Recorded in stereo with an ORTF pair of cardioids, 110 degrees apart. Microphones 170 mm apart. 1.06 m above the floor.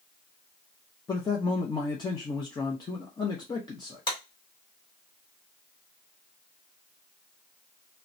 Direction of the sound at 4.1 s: 30° left.